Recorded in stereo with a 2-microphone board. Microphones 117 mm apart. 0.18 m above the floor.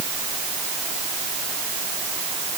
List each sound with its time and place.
Only background noise.